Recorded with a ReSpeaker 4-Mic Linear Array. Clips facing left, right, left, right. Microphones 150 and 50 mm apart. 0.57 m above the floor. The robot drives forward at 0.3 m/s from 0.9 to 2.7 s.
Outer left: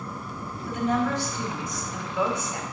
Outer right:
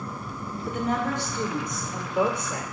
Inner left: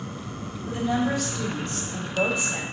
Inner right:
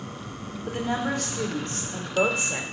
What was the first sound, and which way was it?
A woman speaking, 55° right (ahead or behind).